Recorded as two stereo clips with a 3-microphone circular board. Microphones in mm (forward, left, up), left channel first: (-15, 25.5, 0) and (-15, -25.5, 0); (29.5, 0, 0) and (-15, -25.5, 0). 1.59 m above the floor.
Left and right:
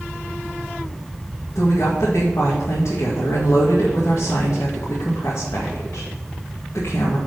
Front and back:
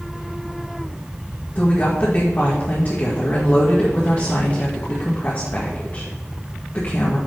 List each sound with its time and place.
1.6 s a woman speaking: 80° left, 2 m